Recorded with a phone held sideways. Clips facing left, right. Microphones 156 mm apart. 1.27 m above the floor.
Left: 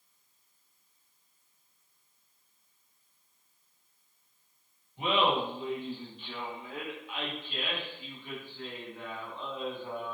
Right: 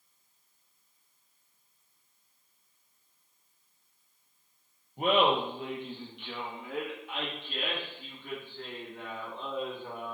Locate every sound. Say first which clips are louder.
5.0 s laughter: right 2 dB; 45° right (ahead or behind), 0.7 m; by 10.1 s 60° right (ahead or behind), 3 m